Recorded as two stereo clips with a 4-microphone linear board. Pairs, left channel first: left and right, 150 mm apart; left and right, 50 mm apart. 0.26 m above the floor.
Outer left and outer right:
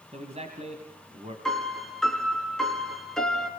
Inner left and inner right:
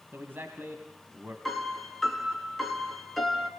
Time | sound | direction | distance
0.1 | a man speaking | 50° right (ahead or behind) | 2.5 m
1.4 | a piano | 5° left (ahead or behind) | 2 m